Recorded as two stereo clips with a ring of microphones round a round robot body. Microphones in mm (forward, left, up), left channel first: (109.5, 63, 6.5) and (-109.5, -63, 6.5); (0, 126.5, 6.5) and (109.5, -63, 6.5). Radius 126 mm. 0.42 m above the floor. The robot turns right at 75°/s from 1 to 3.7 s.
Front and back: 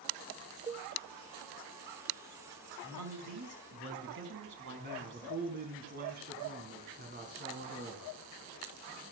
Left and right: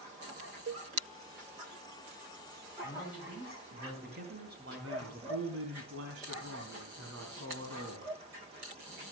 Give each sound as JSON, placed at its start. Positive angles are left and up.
{"t": 0.7, "sound": "a cowbell", "azimuth_deg": -80, "distance_m": 0.8}
{"t": 2.8, "sound": "a man speaking", "azimuth_deg": -175, "distance_m": 5.0}
{"t": 4.8, "sound": "a man speaking", "azimuth_deg": -95, "distance_m": 3.5}